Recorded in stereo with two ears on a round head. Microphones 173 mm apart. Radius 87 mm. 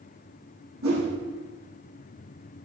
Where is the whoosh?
85° right, 5.5 m.